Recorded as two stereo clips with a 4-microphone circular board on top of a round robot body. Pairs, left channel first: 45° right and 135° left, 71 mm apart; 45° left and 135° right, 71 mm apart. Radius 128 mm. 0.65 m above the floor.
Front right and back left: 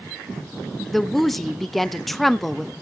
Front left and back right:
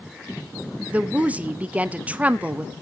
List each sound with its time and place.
0.9 s a woman speaking: 130° right, 1.0 m